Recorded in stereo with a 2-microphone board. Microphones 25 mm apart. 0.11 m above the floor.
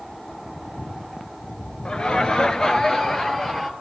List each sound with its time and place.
1.9 s laughter: 40° left (ahead or behind), 1.8 m; by 3.7 s 15° left (ahead or behind), 2.5 m